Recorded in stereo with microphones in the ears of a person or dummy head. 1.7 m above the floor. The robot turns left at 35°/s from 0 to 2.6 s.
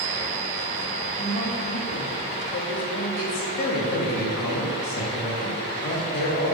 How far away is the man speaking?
About 2.5 m.